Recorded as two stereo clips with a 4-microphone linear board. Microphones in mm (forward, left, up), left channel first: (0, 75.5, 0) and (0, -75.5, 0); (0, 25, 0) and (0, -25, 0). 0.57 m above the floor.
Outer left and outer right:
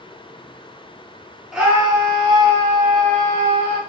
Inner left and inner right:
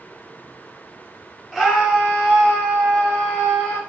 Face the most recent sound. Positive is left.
turn(degrees=-50)  # may be behind; listen again after turning